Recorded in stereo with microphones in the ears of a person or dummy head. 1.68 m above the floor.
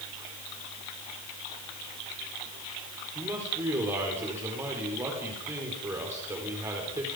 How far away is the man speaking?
About 4.5 m.